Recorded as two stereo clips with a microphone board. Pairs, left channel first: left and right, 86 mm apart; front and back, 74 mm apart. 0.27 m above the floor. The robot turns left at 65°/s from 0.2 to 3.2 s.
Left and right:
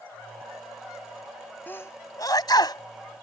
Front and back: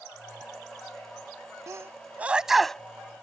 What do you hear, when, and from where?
1.7 s a sneeze: 150° left; by 2.8 s 75° left